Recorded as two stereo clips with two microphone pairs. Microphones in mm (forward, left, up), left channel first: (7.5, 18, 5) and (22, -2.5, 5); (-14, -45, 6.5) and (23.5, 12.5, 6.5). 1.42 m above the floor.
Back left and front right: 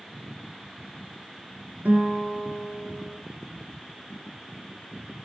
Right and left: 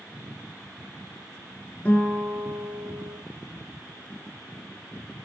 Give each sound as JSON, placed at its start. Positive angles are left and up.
{"t": 1.9, "sound": "a guitar", "azimuth_deg": -55, "distance_m": 6.5}